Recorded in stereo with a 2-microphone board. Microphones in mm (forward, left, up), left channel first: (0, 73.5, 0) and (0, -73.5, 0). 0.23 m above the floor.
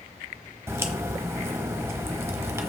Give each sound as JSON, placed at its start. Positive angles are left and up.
{"t": 0.7, "sound": "a crack", "side_deg": -20, "distance_m": 1.1}